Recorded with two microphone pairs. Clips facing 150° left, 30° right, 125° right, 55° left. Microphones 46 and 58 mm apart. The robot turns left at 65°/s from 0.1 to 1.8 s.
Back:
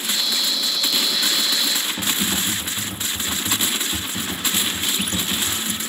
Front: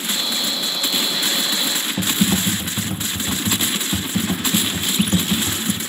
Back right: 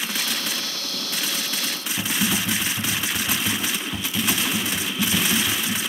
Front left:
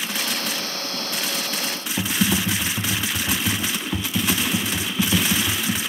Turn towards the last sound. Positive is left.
turn(degrees=30)